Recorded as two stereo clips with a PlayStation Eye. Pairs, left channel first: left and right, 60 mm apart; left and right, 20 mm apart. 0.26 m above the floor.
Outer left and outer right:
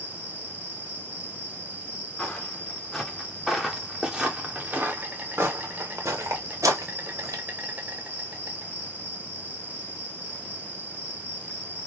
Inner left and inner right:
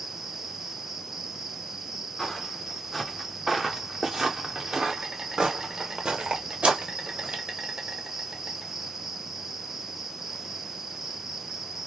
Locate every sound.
0.0 s an insect: 30° right (ahead or behind), 1.5 m
2.2 s footsteps: 20° left (ahead or behind), 1.9 m; by 7.4 s 75° right (ahead or behind), 2 m